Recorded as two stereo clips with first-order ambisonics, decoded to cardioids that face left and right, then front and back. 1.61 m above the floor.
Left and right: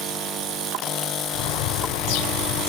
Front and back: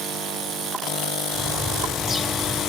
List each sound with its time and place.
1.3 s a bird: 90° left, 1.0 m